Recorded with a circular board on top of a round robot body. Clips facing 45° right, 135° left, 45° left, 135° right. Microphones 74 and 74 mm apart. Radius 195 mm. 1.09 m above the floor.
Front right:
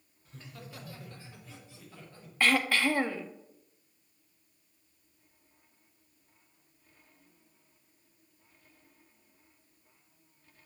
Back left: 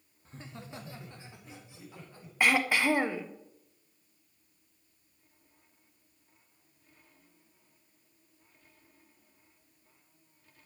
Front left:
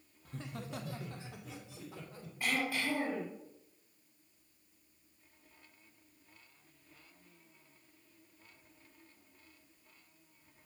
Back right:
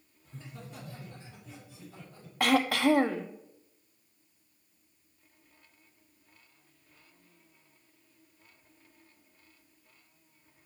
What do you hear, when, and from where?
0.2 s laughter: 80° left, 1.6 m; by 2.3 s 60° left, 4.5 m
2.4 s throat clearing: 150° right, 1.2 m